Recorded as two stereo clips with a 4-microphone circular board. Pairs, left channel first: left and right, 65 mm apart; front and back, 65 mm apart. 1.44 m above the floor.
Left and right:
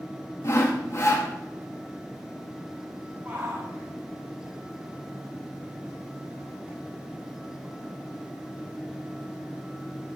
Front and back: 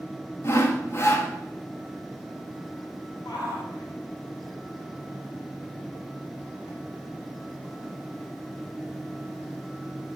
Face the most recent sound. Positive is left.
turn(degrees=-20)